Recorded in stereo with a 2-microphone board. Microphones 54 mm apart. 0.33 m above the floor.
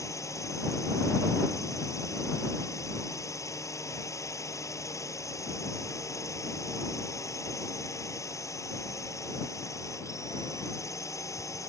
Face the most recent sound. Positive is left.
turn(degrees=65)  # may be behind; listen again after turning